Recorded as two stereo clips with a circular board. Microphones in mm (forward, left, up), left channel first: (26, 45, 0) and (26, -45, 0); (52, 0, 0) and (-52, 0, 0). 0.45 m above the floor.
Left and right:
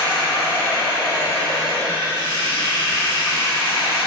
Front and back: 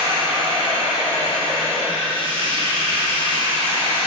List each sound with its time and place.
0.0 s running water: 150° left, 3 m